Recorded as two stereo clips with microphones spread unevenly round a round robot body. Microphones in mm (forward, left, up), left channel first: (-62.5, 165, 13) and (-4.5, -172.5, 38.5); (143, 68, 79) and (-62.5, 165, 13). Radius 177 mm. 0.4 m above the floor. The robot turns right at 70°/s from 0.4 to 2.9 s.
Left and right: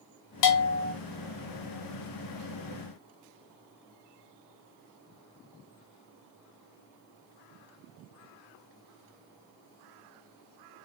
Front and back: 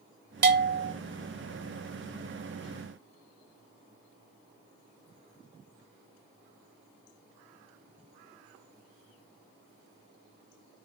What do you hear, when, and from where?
0.4 s a bell: 125° left, 0.7 m; by 0.9 s 160° left, 0.7 m